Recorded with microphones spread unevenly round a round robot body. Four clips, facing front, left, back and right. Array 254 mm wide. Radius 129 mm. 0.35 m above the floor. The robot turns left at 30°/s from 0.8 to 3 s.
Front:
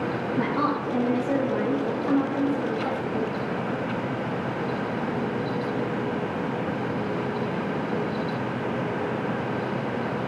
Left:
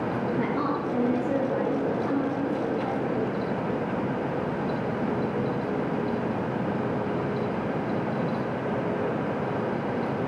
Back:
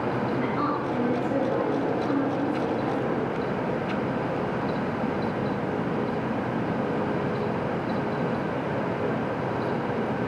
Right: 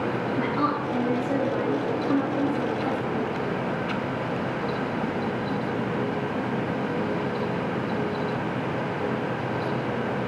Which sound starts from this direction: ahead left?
A woman speaking, at 0.4 s.